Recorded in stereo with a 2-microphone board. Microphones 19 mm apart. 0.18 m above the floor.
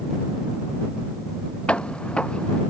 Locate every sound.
1.7 s footsteps: 80° left